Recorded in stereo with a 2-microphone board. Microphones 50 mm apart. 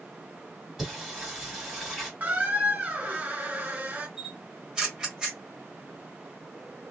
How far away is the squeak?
About 1.2 m.